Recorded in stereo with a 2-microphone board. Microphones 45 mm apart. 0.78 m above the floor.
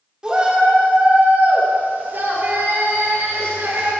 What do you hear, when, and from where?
0.2 s a shout: 20° right (ahead or behind), 1.6 m; by 3.9 s 70° right (ahead or behind), 2.5 m